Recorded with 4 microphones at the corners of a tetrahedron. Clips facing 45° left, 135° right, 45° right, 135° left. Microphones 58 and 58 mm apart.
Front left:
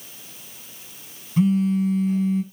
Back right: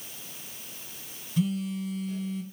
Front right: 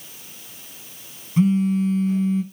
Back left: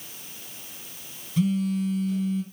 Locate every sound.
1.4 s a phone buzzing: straight ahead, 2 m